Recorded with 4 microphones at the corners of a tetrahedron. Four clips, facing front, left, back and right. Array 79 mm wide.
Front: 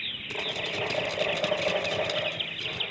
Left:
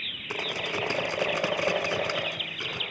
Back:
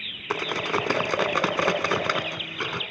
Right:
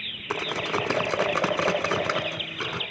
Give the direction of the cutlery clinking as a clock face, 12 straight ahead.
5 o'clock.